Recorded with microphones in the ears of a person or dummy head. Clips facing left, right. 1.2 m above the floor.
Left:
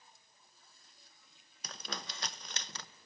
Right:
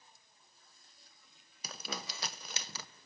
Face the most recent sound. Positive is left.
turn(degrees=-10)  # may be behind; listen again after turning